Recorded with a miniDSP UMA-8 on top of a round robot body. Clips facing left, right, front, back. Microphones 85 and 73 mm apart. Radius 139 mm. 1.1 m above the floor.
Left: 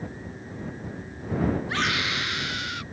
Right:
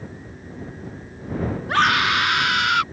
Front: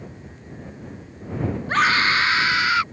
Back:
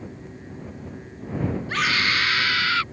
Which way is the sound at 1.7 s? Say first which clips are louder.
Right 9 dB, front 6 dB; 50° right.